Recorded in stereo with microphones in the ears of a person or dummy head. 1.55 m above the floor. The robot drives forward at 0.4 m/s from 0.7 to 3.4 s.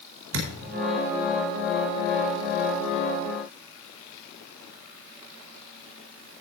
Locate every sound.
0.3 s a thud: 75° right (ahead or behind), 4.5 m